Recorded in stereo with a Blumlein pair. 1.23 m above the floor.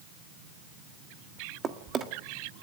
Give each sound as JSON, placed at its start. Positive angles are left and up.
{"t": 1.6, "sound": "a drawer", "azimuth_deg": -20, "distance_m": 1.6}